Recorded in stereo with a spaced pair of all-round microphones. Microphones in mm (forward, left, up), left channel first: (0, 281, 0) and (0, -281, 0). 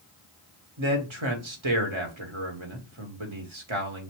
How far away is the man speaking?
About 1.4 m.